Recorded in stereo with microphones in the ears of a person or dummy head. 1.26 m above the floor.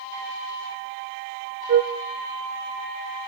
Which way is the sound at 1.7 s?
65° right (ahead or behind).